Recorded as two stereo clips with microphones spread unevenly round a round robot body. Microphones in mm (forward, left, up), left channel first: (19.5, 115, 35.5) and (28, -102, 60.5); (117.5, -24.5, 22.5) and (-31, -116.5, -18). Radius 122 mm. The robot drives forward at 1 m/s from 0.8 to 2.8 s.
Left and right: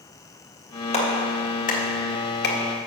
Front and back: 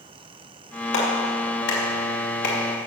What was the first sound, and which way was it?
A clap, 35° left.